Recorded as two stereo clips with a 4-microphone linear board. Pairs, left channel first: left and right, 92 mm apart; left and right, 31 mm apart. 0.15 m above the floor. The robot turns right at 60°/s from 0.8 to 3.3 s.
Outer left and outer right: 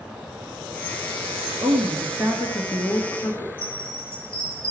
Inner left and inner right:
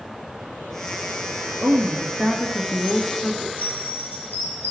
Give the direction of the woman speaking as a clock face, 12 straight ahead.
2 o'clock.